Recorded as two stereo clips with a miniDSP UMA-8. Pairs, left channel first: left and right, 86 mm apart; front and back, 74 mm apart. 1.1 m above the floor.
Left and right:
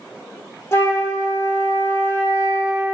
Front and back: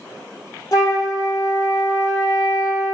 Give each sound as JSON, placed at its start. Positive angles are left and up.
{"t": 0.7, "sound": "a flute", "azimuth_deg": 35, "distance_m": 1.4}